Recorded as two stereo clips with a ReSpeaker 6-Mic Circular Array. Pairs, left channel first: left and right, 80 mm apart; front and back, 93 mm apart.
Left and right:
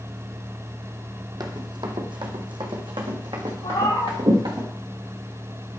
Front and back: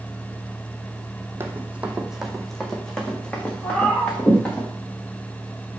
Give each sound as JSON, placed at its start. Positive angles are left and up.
{"t": 1.4, "sound": "running footsteps", "azimuth_deg": -115, "distance_m": 1.0}
{"t": 3.6, "sound": "a cat meowing", "azimuth_deg": 75, "distance_m": 1.4}